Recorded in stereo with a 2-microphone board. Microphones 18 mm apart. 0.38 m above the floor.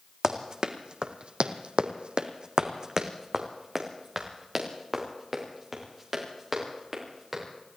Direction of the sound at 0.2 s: 35° right (ahead or behind).